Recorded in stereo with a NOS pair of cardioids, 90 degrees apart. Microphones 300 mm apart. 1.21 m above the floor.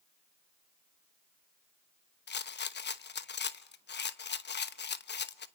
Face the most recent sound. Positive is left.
turn(degrees=35)